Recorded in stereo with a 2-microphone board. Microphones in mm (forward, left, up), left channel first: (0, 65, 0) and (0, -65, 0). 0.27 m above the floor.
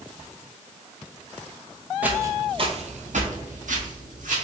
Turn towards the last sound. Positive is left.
turn(degrees=-70)  # may be behind; listen again after turning